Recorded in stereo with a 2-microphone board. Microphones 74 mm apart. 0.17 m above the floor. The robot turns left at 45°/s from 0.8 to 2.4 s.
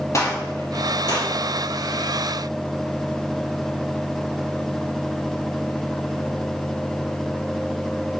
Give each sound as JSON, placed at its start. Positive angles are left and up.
{"t": 0.1, "sound": "a gunshot", "side_deg": 45, "distance_m": 2.5}